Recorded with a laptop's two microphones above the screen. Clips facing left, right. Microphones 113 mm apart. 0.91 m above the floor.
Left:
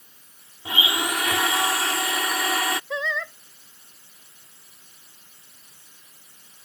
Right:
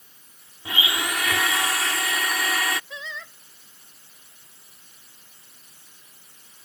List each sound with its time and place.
0.7 s a blender: 25° left (ahead or behind)
2.9 s singing: 85° left